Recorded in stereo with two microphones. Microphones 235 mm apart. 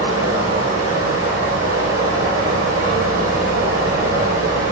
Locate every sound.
0.0 s running water: 75° right (ahead or behind), 1.2 m